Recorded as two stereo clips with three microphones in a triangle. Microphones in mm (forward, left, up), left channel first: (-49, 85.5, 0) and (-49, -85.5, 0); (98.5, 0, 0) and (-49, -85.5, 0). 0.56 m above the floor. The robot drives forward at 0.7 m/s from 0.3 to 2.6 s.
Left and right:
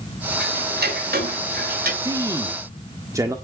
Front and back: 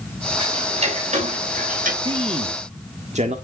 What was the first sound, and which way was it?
Ticking, 95° right.